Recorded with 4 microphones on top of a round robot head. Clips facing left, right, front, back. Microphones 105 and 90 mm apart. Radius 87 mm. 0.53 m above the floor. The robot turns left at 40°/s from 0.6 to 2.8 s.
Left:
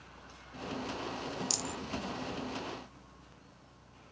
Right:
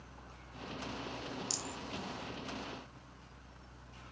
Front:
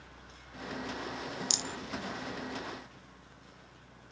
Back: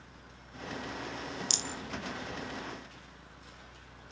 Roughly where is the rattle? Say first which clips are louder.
Left 4 dB, even; behind left.